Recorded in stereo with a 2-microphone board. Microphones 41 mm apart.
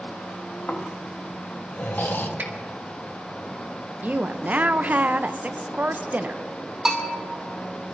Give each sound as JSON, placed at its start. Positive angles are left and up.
{"t": 0.7, "sound": "snoring", "side_deg": 55, "distance_m": 1.1}
{"t": 2.4, "sound": "a finger snap", "side_deg": -60, "distance_m": 1.9}
{"t": 4.0, "sound": "a woman speaking", "side_deg": -40, "distance_m": 0.5}
{"t": 6.8, "sound": "a bell", "side_deg": -10, "distance_m": 2.0}